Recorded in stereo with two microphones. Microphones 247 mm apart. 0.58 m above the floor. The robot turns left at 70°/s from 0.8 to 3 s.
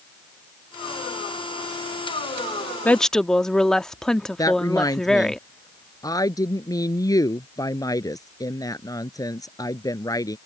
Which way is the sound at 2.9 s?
10° left (ahead or behind).